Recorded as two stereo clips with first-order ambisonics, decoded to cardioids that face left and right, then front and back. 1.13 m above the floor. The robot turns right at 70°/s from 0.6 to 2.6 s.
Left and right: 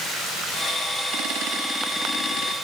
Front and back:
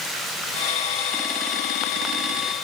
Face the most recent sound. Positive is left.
No sound to turn to.